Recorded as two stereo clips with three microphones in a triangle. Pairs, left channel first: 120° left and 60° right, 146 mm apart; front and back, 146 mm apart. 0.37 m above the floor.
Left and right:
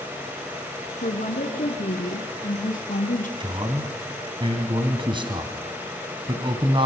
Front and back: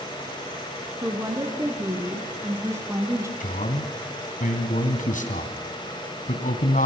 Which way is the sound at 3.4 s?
5° right.